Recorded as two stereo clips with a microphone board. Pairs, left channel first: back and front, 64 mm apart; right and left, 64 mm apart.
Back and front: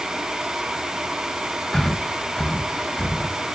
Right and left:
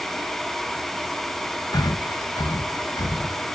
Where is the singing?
I don't hear singing.